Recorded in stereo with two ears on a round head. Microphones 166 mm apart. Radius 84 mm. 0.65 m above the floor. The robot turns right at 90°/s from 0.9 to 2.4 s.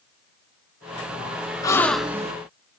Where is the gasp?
150° left, 0.8 m; by 2.3 s 145° right, 0.8 m.